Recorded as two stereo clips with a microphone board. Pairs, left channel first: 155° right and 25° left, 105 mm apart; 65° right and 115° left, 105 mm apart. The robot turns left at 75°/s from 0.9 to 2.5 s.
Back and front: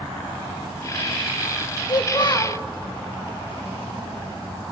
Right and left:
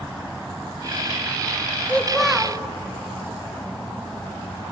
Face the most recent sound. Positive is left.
turn(degrees=180)